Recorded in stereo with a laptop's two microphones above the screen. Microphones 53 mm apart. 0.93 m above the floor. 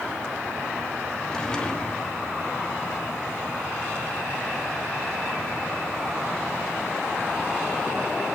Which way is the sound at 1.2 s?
15° left (ahead or behind).